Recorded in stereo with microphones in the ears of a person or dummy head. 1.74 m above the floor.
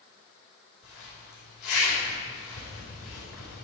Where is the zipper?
70° left (ahead or behind), 5 m.